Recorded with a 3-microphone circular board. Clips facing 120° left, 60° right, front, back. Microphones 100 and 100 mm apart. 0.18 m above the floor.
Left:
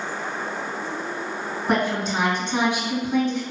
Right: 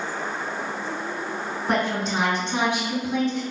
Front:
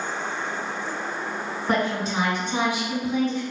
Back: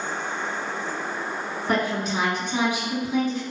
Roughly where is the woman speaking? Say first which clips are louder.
Left 1 dB, even; ahead left.